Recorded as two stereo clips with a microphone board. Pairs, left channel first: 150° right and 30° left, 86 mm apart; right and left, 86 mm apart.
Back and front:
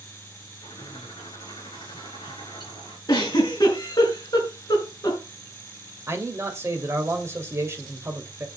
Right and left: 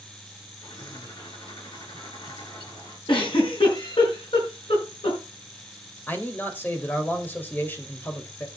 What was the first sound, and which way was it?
A bird, 115° right.